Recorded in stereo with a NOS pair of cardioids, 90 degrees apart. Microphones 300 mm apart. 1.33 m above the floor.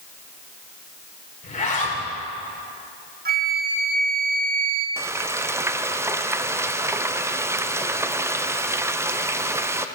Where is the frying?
10° right, 0.6 m.